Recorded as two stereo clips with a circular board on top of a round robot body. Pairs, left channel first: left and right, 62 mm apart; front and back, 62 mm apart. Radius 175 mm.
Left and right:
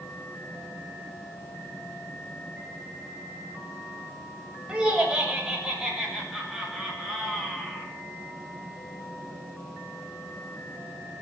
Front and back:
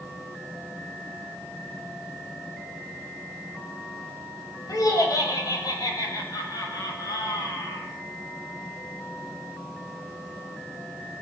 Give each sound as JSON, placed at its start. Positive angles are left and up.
{"t": 4.7, "sound": "laughter", "azimuth_deg": -10, "distance_m": 6.0}